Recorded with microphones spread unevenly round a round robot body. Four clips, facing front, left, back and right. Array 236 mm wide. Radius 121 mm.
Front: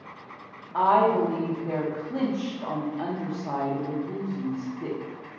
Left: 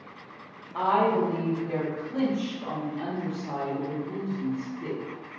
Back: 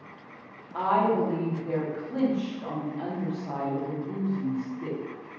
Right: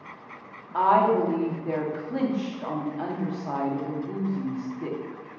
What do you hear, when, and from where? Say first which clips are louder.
0.7 s a woman speaking: right 3 dB, front 4 dB; 40° right, 0.9 m